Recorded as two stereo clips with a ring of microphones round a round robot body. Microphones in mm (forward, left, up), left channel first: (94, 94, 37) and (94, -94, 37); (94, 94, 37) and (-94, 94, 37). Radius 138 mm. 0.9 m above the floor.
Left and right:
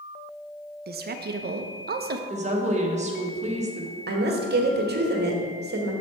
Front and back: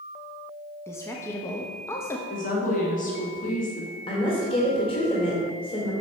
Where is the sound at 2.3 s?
45° right, 1.4 m.